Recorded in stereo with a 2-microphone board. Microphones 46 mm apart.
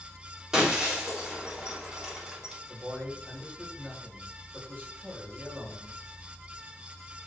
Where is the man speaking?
35° right (ahead or behind), 3.5 m.